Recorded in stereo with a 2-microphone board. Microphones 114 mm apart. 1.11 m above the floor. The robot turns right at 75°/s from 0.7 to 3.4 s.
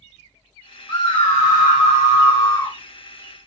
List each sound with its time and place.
0.9 s a scream: 30° left, 0.6 m; by 2.8 s 170° left, 0.6 m